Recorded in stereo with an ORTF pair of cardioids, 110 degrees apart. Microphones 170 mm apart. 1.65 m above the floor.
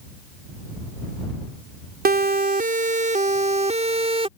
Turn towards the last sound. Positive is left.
turn(degrees=-35)